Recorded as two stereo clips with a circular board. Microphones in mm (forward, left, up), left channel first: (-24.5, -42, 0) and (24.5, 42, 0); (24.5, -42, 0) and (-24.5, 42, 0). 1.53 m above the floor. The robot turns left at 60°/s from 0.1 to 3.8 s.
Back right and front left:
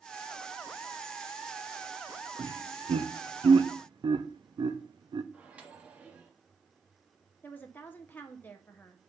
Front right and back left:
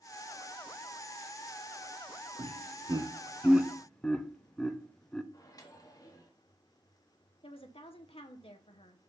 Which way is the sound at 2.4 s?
105° left.